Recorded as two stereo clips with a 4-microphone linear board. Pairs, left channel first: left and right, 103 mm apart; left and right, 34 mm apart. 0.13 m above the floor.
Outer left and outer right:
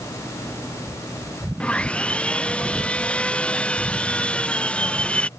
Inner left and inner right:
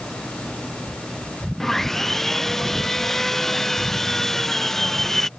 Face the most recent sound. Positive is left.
turn(degrees=10)  # may be behind; listen again after turning